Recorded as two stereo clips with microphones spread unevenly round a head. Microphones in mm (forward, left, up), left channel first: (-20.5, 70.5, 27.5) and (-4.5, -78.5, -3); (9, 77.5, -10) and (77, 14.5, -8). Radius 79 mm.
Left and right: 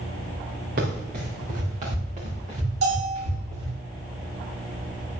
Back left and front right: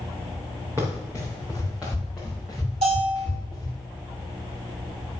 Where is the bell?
80° right, 6 m.